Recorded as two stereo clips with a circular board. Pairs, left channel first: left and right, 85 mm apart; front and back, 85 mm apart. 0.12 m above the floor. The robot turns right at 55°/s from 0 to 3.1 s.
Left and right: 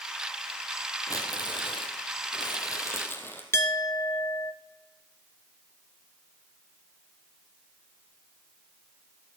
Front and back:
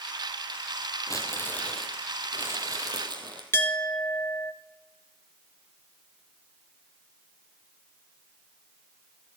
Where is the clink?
45° left, 1.0 m.